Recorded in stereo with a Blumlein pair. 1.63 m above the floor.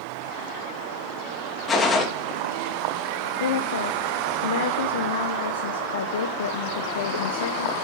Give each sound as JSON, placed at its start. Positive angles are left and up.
{"t": 1.7, "sound": "a gunshot", "azimuth_deg": 20, "distance_m": 3.0}
{"t": 3.4, "sound": "a woman speaking", "azimuth_deg": 60, "distance_m": 1.1}